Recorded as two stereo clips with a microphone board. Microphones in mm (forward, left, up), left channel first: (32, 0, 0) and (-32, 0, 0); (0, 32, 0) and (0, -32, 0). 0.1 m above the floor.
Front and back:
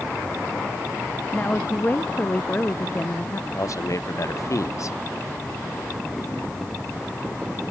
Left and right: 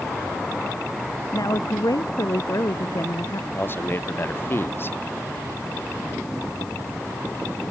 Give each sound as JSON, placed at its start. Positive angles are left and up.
{"t": 1.3, "sound": "a woman speaking", "azimuth_deg": 65}
{"t": 3.5, "sound": "a man speaking", "azimuth_deg": 35}